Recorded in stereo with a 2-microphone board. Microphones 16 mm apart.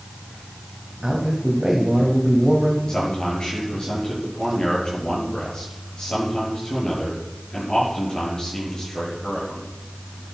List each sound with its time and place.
1.0 s a man speaking: 30° right (ahead or behind), 2.5 m
2.9 s a man speaking: 65° left (ahead or behind), 8.5 m